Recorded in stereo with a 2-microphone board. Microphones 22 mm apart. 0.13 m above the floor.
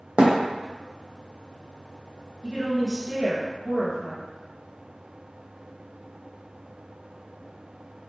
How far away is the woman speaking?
About 1.4 m.